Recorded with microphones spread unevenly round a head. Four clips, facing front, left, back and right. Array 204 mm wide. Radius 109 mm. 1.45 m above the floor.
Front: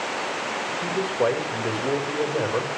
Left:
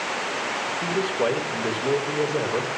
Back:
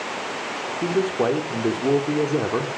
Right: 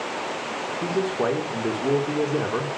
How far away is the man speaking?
About 4 m.